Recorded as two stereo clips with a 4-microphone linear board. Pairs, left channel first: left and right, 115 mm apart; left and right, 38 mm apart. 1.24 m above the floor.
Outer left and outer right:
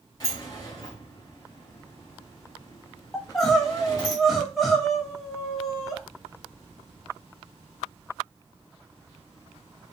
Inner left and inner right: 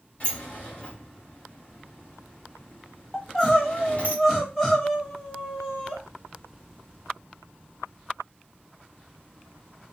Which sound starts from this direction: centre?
Crying, at 3.1 s.